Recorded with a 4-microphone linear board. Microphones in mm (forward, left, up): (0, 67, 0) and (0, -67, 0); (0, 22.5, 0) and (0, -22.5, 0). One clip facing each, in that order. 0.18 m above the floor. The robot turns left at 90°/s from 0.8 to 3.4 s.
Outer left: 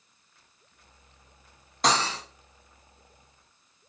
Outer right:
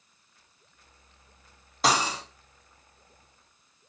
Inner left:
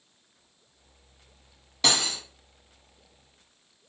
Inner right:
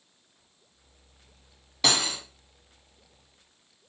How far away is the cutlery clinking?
About 0.7 m.